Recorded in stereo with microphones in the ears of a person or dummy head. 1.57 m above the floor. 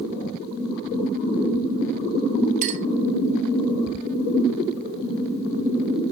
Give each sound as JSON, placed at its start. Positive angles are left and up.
{"t": 2.6, "sound": "a clink", "side_deg": -40, "distance_m": 1.9}